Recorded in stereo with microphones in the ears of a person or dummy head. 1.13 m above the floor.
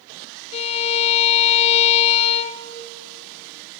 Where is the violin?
35° left (ahead or behind), 0.7 m.